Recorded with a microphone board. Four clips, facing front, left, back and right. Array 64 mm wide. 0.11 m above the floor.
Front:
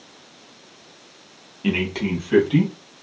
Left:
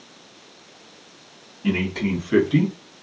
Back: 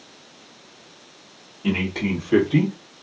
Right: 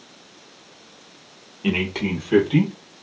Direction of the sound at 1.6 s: 55° right.